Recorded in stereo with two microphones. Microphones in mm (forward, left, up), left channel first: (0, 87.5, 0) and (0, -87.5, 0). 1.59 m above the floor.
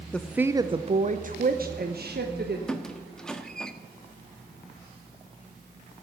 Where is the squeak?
5° left (ahead or behind), 1.1 m.